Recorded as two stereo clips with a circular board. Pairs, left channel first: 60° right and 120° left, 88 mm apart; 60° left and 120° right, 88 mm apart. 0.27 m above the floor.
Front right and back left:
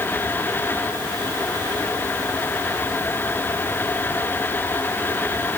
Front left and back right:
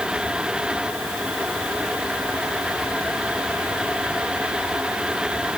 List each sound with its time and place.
Only background noise.